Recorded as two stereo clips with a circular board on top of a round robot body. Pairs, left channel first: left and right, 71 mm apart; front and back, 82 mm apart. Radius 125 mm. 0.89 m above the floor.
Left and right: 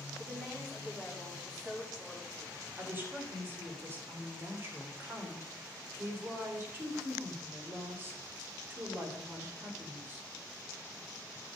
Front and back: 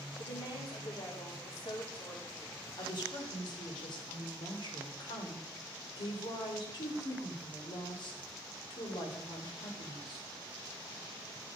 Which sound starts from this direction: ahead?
A woman speaking, at 0.2 s.